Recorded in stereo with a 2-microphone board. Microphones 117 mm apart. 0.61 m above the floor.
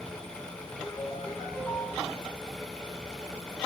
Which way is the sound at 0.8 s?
35° left (ahead or behind).